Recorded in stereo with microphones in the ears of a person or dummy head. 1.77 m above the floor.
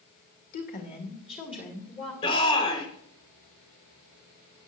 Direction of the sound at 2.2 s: 30° left (ahead or behind).